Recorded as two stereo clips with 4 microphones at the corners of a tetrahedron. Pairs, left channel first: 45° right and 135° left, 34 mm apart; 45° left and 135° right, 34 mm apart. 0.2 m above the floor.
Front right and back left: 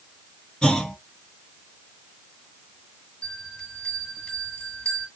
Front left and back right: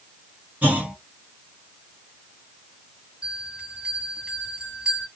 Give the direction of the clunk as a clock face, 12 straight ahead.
3 o'clock.